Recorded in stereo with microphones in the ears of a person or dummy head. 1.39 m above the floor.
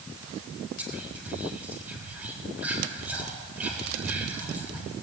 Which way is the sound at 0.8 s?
10° right (ahead or behind).